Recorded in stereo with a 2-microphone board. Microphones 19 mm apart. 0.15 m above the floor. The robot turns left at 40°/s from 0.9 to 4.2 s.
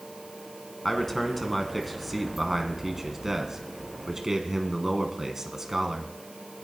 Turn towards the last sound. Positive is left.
turn(degrees=-25)  # may be behind; listen again after turning